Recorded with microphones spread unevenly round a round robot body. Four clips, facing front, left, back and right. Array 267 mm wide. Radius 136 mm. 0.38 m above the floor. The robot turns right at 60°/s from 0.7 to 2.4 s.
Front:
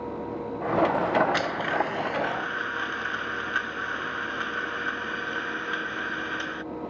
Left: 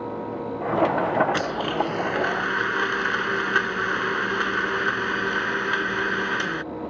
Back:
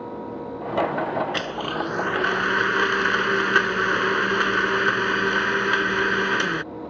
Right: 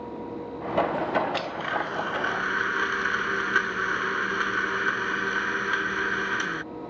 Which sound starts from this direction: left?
A blender, at 1.3 s.